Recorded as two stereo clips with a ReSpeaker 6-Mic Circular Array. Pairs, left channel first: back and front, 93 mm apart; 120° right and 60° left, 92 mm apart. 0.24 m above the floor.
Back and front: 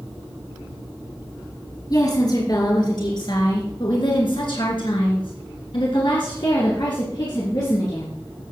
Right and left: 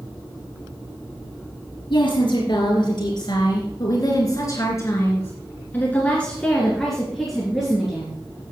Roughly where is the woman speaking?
Behind right.